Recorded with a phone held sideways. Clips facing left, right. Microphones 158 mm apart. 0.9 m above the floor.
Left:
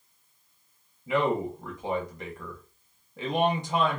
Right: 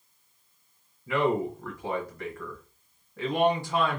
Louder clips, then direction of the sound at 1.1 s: Even; 20° left (ahead or behind).